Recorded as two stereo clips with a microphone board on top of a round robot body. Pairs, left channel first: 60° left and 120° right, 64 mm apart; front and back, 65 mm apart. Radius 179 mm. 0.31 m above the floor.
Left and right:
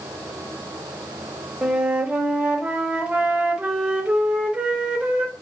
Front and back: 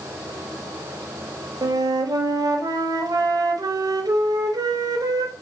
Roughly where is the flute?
Behind.